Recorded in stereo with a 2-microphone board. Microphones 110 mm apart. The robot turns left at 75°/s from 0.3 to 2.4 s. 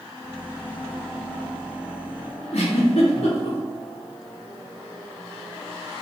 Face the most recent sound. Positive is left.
turn(degrees=85)